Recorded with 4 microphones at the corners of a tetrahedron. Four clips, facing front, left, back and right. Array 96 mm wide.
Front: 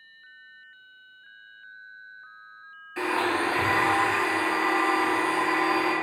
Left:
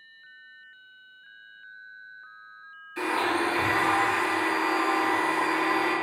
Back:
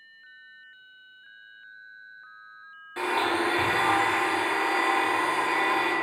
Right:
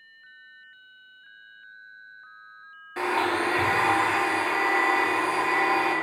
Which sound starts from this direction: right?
A blender, at 3.0 s.